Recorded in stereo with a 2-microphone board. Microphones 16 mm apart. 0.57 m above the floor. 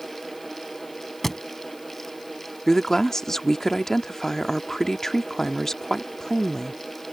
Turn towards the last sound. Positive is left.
turn(degrees=35)  # may be behind; listen again after turning